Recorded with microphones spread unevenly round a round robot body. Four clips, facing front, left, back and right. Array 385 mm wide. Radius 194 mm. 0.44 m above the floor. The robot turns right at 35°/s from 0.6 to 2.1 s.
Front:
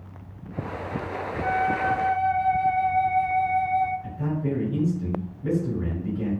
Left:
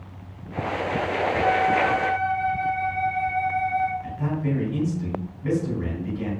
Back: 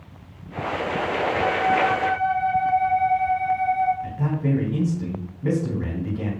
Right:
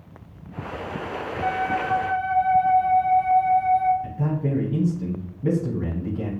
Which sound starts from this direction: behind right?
A man speaking, at 4.0 s.